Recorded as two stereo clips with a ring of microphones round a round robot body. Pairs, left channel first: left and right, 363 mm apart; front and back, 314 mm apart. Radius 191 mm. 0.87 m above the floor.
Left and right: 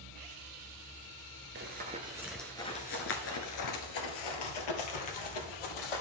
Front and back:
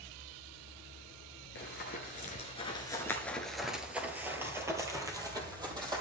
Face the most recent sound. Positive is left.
turn(degrees=105)